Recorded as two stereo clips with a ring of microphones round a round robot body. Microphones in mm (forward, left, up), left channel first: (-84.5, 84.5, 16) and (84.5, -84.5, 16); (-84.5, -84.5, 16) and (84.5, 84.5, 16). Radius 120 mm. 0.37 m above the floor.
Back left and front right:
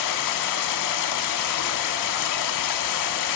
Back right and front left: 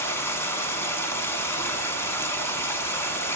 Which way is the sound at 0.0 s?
145° left.